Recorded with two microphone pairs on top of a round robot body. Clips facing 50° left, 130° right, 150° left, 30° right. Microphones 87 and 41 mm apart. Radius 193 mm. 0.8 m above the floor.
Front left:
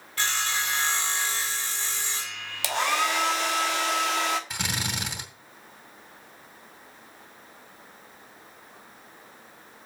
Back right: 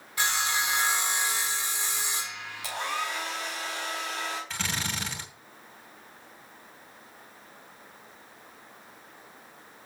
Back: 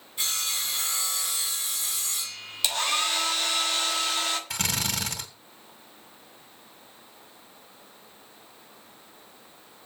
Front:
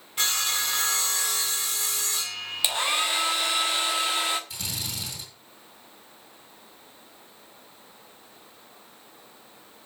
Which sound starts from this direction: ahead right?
Sawing, at 0.2 s.